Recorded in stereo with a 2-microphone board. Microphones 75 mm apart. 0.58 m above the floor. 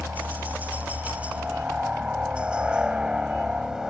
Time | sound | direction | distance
0.0 | a helicopter | 20° right (ahead or behind) | ?